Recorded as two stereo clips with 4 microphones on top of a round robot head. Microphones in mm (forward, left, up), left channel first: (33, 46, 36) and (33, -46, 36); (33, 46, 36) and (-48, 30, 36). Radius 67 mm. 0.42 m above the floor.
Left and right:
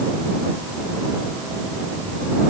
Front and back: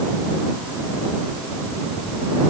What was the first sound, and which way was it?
Only background noise.